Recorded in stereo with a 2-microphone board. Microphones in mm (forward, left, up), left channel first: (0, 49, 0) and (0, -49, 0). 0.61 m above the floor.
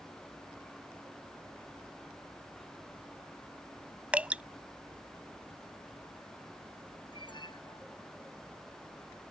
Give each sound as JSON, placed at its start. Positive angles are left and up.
{"t": 4.1, "sound": "dripping", "side_deg": -15}
{"t": 7.1, "sound": "an alarm", "side_deg": 50}